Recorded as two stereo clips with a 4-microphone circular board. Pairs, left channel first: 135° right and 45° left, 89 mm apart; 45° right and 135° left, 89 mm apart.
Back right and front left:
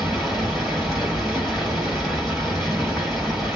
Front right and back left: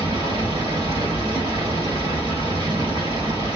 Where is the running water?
135° left, 1.9 m.